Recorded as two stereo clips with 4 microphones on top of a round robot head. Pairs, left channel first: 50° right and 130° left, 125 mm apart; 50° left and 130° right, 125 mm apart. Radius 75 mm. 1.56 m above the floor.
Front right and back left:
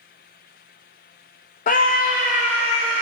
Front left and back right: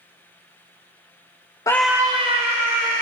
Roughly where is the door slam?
I don't hear a door slam.